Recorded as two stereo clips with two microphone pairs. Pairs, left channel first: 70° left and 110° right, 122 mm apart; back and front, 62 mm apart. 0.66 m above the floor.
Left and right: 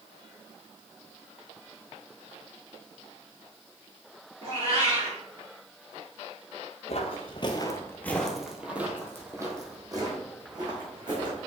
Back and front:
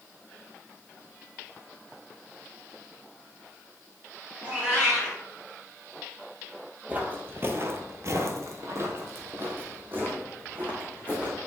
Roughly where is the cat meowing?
Ahead right.